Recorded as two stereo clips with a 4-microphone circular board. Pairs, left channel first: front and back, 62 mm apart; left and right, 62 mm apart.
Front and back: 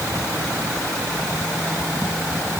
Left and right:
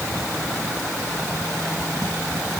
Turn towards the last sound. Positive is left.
No sound to turn to.